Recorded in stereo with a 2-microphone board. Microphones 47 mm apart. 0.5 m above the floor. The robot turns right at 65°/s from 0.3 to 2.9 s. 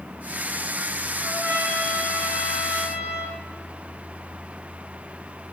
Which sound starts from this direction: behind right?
A trumpet, at 1.2 s.